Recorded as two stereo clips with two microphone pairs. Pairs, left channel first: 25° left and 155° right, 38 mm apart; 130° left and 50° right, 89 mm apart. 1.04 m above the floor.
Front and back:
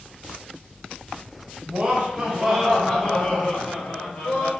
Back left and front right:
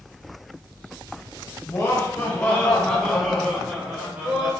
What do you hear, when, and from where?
1.7 s laughter: 170° left, 0.9 m; by 4.5 s 15° left, 1.2 m